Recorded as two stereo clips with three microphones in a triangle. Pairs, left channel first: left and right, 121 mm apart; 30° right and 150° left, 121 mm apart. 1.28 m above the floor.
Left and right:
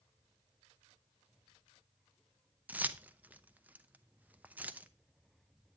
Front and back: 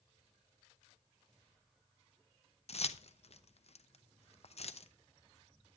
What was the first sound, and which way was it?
Keys jangling, 15° right.